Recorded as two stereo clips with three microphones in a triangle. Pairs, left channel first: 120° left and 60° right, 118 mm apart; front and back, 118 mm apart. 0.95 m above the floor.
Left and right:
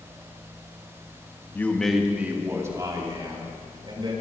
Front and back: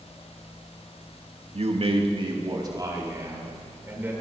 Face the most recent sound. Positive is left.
turn(degrees=-110)